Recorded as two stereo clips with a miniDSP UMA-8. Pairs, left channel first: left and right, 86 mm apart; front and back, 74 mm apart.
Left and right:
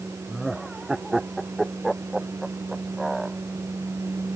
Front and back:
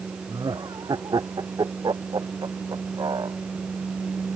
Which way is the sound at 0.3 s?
175° right.